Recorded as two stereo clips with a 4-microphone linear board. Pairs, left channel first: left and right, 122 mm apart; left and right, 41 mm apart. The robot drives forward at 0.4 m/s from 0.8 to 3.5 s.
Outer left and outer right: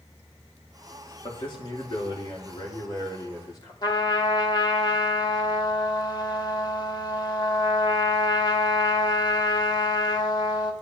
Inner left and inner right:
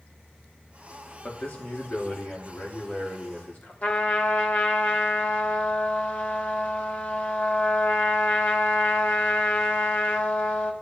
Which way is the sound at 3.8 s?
35° left (ahead or behind).